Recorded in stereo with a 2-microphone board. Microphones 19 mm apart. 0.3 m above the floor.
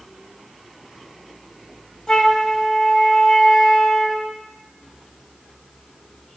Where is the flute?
45° left (ahead or behind), 1.7 m.